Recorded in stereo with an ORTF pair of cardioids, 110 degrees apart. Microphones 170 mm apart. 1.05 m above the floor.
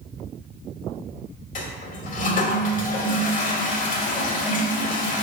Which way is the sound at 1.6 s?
45° left.